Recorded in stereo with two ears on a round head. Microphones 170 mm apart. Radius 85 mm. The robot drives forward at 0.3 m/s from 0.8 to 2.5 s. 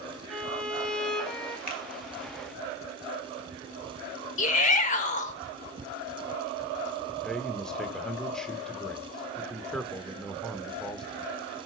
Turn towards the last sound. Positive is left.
turn(degrees=5)  # may be behind; listen again after turning